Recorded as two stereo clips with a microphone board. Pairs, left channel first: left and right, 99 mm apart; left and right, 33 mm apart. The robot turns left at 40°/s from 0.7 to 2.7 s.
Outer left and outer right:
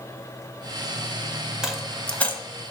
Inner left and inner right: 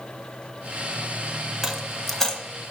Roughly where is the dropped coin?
Centre.